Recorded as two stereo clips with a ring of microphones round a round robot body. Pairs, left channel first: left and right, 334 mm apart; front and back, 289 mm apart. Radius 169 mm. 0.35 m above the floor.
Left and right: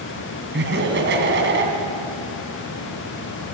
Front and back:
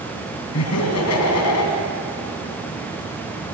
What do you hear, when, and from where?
0.5 s laughter: 35° right, 3 m